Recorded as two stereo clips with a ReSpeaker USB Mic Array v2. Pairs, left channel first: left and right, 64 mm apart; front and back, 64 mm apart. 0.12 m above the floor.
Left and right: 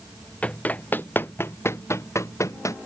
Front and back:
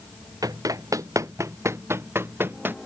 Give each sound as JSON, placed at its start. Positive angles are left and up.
{"t": 0.4, "sound": "running footsteps", "azimuth_deg": 160}